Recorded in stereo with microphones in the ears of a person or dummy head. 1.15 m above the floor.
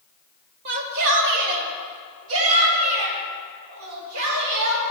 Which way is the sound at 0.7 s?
55° right (ahead or behind).